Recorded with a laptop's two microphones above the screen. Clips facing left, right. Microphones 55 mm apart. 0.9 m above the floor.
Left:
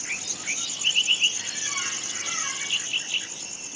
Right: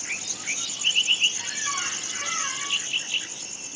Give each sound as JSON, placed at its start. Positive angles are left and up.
{"t": 1.4, "sound": "a squeak", "side_deg": -60, "distance_m": 4.5}